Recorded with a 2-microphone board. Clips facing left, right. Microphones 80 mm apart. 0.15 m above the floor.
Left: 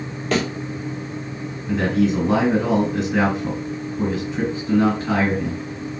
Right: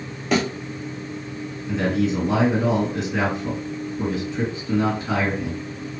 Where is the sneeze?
I don't hear a sneeze.